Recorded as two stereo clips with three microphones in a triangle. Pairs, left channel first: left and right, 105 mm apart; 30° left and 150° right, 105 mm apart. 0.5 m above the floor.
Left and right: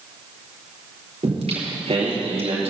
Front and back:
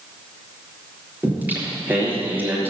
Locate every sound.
1.2 s singing: 75° right, 3.5 m